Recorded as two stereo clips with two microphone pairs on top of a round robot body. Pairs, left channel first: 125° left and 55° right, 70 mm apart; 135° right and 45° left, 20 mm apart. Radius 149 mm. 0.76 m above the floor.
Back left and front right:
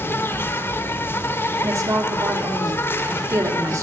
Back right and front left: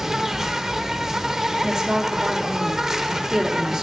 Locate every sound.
0.0 s an insect: 85° left, 1.7 m
1.6 s a woman speaking: 20° right, 2 m